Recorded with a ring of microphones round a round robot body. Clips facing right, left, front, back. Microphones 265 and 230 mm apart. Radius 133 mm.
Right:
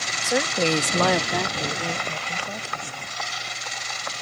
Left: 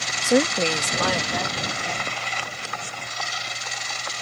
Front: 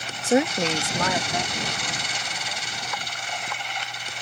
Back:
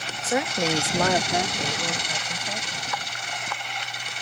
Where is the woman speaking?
55° left; by 3.1 s 125° right.